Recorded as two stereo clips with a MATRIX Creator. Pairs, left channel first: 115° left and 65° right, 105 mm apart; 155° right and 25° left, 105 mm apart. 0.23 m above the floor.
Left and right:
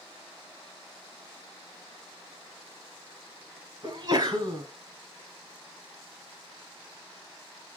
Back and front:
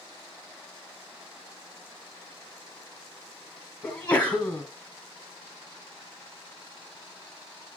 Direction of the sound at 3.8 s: 85° right.